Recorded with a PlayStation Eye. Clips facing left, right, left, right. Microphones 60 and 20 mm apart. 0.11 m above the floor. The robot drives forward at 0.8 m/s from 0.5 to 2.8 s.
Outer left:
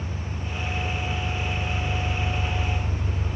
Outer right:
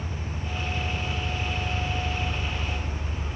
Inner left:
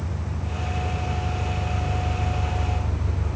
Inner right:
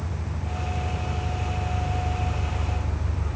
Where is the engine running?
25° left (ahead or behind), 2 m; by 3.4 s 70° left (ahead or behind), 0.9 m.